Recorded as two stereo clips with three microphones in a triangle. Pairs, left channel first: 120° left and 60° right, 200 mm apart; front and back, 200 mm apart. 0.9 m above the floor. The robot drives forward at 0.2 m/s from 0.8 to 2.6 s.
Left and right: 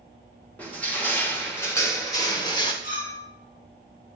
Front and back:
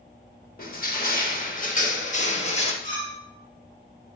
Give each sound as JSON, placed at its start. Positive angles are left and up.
{"t": 0.6, "sound": "crushing", "azimuth_deg": 40, "distance_m": 1.2}
{"t": 2.8, "sound": "a clink", "azimuth_deg": 135, "distance_m": 3.5}